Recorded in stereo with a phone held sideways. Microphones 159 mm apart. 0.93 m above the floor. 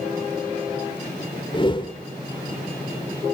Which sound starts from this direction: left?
A whoosh, at 1.5 s.